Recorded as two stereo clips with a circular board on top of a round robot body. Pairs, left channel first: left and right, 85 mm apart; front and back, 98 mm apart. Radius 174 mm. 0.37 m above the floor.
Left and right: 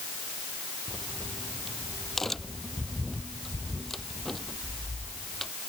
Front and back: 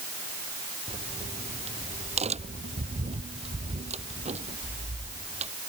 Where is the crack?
175° left.